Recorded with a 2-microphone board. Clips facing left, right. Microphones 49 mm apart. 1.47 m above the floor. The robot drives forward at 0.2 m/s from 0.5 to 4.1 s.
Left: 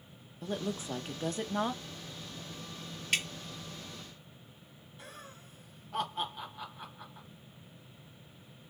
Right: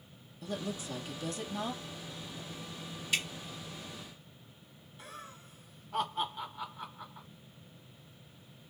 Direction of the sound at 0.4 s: 30° left (ahead or behind).